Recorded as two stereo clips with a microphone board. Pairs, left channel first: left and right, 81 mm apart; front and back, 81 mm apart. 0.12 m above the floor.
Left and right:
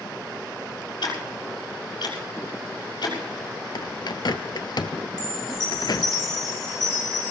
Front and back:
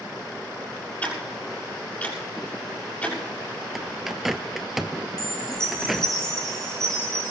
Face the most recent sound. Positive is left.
turn(degrees=-80)